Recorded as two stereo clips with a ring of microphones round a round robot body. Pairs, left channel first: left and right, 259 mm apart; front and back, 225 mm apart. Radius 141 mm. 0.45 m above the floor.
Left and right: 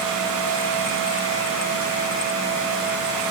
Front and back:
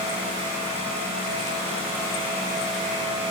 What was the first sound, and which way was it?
Only background noise.